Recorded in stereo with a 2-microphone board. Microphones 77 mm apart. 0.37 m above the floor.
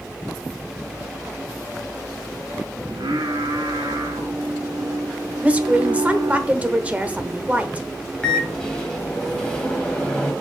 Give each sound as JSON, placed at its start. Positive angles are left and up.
{"t": 2.9, "sound": "singing", "side_deg": -75, "distance_m": 3.0}
{"t": 5.4, "sound": "a woman speaking", "side_deg": -20, "distance_m": 1.0}
{"t": 8.2, "sound": "a microwave", "side_deg": 10, "distance_m": 2.0}